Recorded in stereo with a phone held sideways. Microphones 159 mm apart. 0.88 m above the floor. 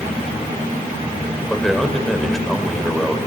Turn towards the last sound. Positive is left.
turn(degrees=0)  # may be behind; listen again after turning